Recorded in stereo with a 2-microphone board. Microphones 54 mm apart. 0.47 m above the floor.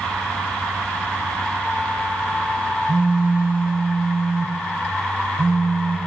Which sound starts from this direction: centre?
A phone buzzing, at 2.9 s.